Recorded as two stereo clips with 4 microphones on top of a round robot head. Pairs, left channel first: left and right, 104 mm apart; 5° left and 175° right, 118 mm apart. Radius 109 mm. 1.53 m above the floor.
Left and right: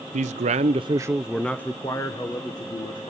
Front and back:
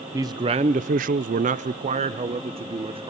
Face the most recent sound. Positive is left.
turn(degrees=140)